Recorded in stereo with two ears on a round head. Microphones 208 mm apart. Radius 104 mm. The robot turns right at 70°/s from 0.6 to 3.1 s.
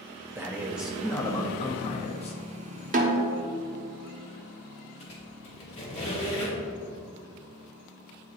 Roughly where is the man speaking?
Centre.